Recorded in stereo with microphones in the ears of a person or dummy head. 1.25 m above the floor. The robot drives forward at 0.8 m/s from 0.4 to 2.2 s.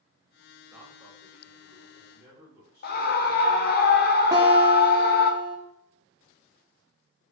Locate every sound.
0.7 s a man speaking: 5° right (ahead or behind), 1.6 m
2.8 s a scream: 50° left (ahead or behind), 0.9 m
4.3 s a guitar: 10° right (ahead or behind), 1.2 m